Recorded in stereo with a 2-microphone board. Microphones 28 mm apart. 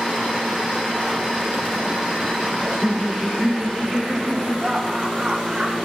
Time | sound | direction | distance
2.6 | laughter | 15° right (ahead or behind) | 1.0 m